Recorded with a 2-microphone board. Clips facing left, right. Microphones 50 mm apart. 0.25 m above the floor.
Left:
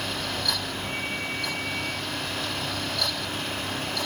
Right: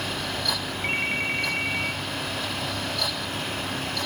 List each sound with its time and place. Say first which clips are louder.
0.8 s a ringtone: right 8 dB; 60° right (ahead or behind), 2.5 m